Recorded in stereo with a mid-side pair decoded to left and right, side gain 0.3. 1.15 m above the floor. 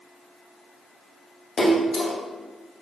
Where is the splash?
70° left, 1.0 m.